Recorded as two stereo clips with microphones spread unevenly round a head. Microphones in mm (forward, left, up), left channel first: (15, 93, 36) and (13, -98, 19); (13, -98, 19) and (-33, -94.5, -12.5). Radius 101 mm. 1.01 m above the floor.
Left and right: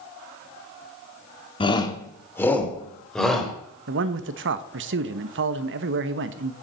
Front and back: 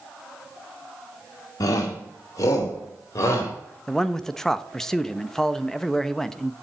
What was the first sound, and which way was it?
A shout, 25° left.